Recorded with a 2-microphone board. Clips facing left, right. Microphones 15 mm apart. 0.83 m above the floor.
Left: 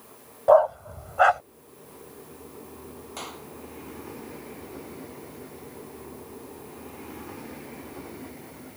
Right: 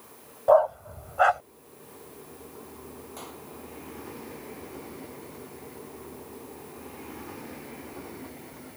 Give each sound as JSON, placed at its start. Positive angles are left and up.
{"t": 0.5, "sound": "a dog barking", "side_deg": 10}
{"t": 3.2, "sound": "a clap", "side_deg": 35}